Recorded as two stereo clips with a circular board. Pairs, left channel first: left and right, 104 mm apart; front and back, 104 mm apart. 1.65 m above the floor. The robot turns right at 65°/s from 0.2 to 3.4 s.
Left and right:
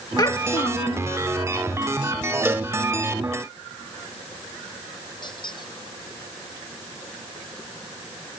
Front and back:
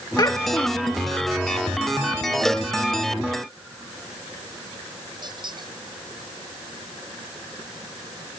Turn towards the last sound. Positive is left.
turn(degrees=135)